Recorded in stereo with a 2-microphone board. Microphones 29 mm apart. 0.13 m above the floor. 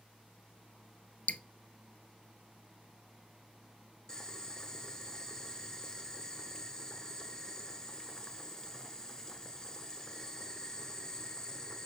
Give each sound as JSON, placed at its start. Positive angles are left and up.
{"t": 1.3, "sound": "dripping", "side_deg": 55, "distance_m": 0.7}
{"t": 4.1, "sound": "boiling", "side_deg": 15, "distance_m": 1.3}